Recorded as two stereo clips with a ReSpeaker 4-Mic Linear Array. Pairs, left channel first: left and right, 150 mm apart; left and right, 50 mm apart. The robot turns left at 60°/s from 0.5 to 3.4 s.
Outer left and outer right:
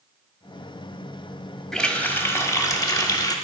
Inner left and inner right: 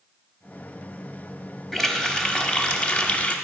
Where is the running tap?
5° left (ahead or behind), 0.6 m; by 3.4 s 25° left (ahead or behind), 0.6 m.